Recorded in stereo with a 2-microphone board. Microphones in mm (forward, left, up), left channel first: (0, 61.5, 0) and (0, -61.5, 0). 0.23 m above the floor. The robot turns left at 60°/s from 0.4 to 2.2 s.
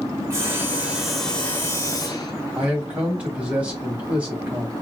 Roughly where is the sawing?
Behind right.